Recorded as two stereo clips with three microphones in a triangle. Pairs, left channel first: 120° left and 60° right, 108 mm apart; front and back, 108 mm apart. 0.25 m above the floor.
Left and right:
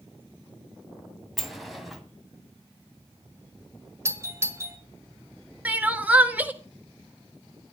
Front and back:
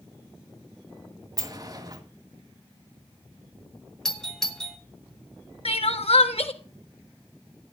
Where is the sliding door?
150° right, 1.9 m.